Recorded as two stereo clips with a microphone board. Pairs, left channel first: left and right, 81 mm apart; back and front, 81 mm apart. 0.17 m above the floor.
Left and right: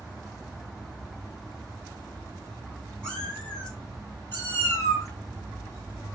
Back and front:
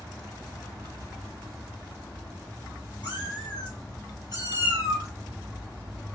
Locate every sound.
3.0 s a cat meowing: 170° left, 2.5 m; by 5.1 s 140° left, 2 m